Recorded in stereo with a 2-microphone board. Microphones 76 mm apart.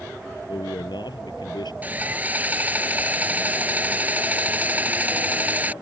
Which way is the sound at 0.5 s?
80° left.